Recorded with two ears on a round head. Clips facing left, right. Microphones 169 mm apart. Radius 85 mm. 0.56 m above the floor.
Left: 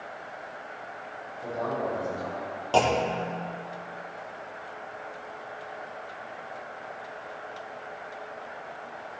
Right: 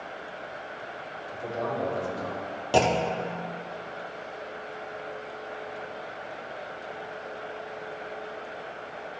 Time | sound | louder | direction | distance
1.3 | a man speaking | even | 40° right (ahead or behind) | 3 m
2.7 | a clunk | even | 15° right (ahead or behind) | 0.6 m